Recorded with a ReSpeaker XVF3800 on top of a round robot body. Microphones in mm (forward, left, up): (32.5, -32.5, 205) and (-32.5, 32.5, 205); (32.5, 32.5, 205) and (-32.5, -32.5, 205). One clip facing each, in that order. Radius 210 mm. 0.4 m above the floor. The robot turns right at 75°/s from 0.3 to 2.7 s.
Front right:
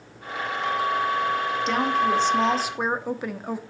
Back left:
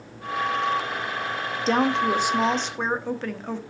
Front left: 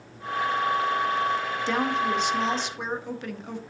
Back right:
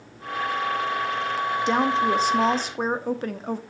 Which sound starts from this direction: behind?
A woman speaking, at 1.7 s.